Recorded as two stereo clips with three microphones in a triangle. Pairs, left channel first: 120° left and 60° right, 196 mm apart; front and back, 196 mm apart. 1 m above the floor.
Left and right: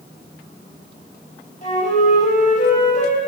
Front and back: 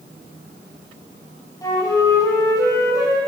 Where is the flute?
70° left, 5 m.